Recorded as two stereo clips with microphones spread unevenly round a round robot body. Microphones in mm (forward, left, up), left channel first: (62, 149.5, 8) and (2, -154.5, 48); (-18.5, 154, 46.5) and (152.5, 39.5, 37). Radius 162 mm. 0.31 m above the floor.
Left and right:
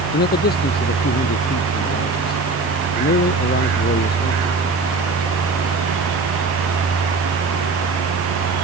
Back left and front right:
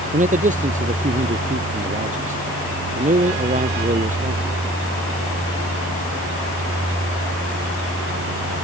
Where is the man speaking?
20° left.